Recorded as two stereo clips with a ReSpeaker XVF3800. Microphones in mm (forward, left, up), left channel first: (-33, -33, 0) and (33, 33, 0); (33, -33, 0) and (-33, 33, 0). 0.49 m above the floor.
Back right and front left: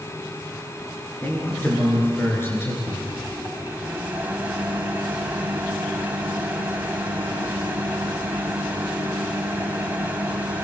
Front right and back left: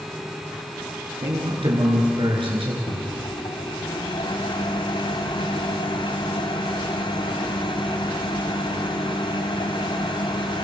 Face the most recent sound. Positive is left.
turn(degrees=-25)